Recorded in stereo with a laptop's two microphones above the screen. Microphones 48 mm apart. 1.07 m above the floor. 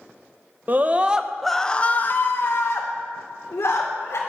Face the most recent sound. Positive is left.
turn(degrees=75)  # may be behind; listen again after turning